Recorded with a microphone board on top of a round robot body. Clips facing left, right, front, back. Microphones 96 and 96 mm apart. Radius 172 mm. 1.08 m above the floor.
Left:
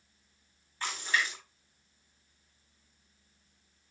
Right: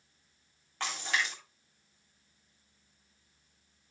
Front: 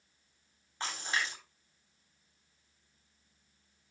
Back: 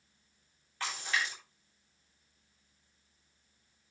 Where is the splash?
65° right, 10 m.